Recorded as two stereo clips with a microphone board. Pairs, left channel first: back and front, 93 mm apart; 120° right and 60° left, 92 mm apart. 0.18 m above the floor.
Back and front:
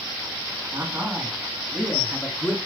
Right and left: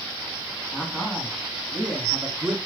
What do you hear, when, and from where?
0.7 s a man speaking: 50° right, 1.7 m; by 2.6 s 145° left, 1.6 m